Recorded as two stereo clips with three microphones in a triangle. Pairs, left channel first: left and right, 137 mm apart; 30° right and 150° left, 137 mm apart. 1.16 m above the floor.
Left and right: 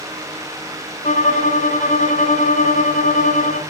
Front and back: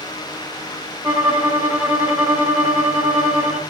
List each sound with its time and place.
1.0 s a violin: 75° left, 2.5 m